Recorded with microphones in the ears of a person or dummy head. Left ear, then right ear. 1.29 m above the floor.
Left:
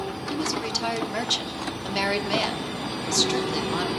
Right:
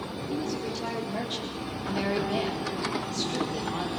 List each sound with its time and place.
0.3 s a woman speaking: 60° left (ahead or behind), 4 m